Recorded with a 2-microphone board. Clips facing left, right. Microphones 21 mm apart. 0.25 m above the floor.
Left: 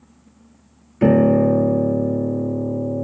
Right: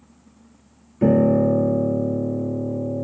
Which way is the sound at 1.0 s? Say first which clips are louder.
Left 2 dB; 55° left (ahead or behind).